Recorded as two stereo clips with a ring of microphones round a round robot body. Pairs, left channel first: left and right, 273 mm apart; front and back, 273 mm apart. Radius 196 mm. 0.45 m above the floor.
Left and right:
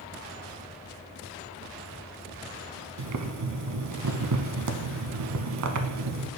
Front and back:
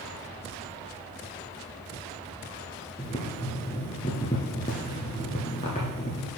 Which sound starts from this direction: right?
Boiling, at 3.0 s.